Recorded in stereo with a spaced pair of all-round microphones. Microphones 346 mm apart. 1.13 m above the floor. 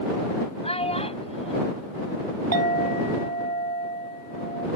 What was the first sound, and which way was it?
A child speaking, 15° left (ahead or behind).